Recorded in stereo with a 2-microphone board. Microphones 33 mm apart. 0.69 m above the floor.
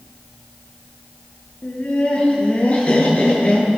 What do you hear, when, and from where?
1.6 s laughter: 35° left (ahead or behind), 9 m